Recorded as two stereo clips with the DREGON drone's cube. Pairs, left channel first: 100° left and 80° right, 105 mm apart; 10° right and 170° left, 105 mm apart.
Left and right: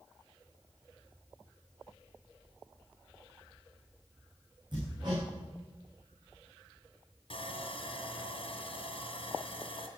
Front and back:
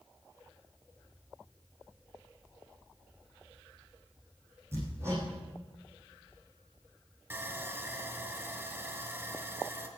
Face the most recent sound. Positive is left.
turn(degrees=110)